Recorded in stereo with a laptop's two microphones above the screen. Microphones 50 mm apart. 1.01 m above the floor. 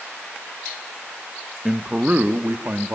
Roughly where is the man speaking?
Centre.